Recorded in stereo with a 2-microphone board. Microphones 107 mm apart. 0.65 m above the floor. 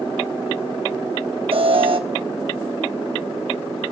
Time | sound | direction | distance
1.5 | an alarm | 60° right (ahead or behind) | 1.1 m